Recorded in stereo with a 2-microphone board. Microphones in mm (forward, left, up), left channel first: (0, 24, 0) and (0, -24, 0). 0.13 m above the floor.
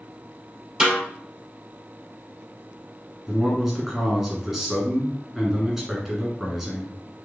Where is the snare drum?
20° right (ahead or behind), 2 m.